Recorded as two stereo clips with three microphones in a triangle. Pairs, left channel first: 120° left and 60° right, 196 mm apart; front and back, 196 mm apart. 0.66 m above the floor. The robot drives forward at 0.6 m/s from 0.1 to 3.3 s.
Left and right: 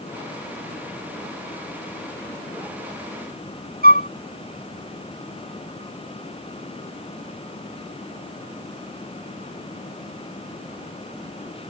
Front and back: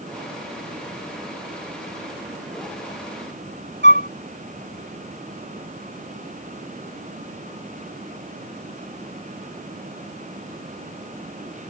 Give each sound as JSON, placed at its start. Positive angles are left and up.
{"t": 3.8, "sound": "a flute", "azimuth_deg": 160}